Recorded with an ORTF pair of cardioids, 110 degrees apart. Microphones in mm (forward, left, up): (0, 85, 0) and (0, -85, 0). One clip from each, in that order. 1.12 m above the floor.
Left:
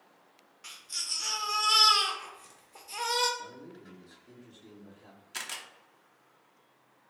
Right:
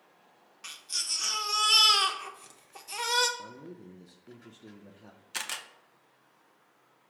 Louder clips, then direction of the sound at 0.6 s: Right 2 dB; 30° right.